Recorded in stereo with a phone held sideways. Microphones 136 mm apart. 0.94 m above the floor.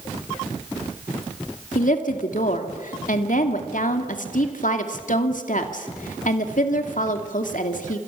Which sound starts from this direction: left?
A woman speaking, at 1.8 s.